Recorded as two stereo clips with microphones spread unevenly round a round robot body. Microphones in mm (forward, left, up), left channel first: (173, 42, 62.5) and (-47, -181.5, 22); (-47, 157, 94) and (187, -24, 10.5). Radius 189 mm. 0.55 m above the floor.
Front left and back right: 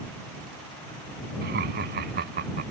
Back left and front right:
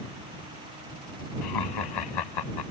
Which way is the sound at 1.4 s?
160° left.